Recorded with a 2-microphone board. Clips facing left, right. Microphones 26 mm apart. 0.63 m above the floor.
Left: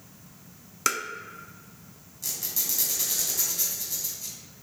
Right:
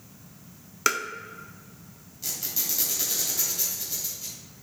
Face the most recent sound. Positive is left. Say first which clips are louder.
# right 1 dB
turn(degrees=-25)  # may be behind; listen again after turning